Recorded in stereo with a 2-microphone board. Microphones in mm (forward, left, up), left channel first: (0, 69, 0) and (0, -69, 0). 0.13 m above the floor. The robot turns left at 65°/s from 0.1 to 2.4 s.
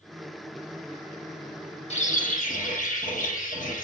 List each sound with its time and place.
1.9 s a bird: 125° left, 6.5 m; by 3.9 s 95° left, 6.5 m